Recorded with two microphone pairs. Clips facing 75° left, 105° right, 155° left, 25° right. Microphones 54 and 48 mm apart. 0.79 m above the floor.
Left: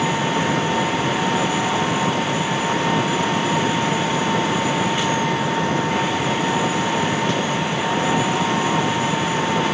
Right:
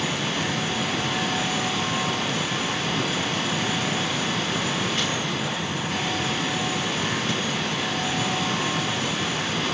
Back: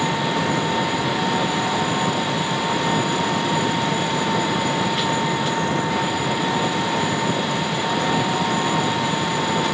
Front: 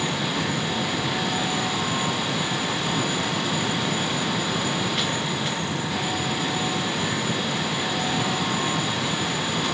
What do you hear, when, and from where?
0.0 s an engine running: 105° left